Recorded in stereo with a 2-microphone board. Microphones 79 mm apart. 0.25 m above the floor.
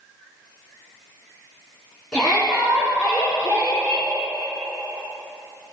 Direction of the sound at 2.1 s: 5° left (ahead or behind).